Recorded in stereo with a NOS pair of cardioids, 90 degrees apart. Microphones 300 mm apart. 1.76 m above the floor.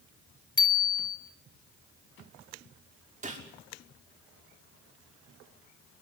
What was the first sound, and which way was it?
A bicycle bell, 15° left.